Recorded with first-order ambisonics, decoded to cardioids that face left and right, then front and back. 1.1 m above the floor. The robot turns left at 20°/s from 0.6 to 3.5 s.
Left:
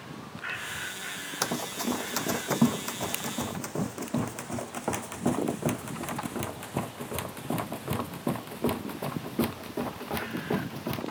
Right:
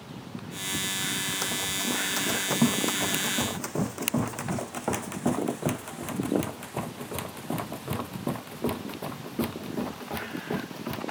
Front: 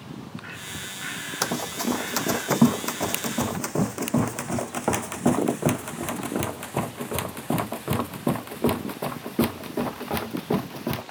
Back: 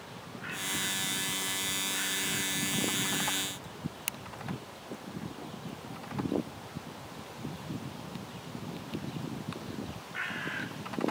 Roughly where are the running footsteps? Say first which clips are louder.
Right 2 dB, front 5 dB; ahead.